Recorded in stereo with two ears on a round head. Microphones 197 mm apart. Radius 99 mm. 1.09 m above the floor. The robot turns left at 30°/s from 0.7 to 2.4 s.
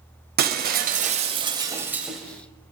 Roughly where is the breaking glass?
Behind right.